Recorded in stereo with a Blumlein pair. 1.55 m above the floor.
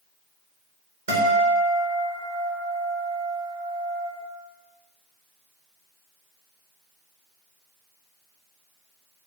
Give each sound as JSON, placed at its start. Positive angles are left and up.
{"t": 1.1, "sound": "a guitar", "azimuth_deg": -60, "distance_m": 1.2}